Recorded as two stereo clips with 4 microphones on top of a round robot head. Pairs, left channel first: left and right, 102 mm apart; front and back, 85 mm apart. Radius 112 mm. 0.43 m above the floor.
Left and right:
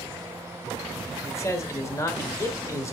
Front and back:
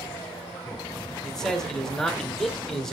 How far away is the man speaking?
About 1.4 m.